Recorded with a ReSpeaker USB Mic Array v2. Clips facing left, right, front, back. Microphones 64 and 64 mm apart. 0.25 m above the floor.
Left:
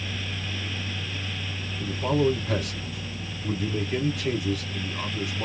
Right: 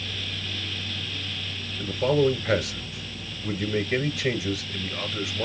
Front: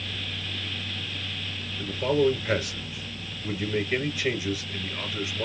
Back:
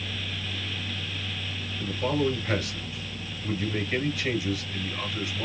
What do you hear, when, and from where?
1.8 s a man speaking: 75° right, 4 m